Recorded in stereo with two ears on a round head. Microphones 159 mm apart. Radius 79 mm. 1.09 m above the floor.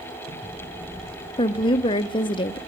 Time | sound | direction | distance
1.4 | a woman speaking | 25° left (ahead or behind) | 0.5 m